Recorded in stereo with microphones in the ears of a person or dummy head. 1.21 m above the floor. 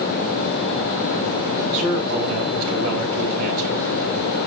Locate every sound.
1.7 s a man speaking: 50° right (ahead or behind), 7 m